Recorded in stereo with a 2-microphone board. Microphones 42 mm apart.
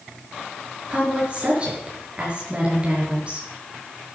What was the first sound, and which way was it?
A woman speaking, 25° right (ahead or behind).